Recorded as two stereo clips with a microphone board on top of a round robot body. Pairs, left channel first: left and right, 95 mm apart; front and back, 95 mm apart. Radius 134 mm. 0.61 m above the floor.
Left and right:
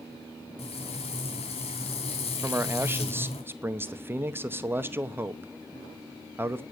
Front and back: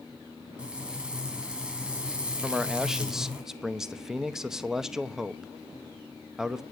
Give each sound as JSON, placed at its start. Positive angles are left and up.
{"t": 0.6, "sound": "frying", "azimuth_deg": 100, "distance_m": 2.5}
{"t": 2.4, "sound": "a man speaking", "azimuth_deg": -105, "distance_m": 1.0}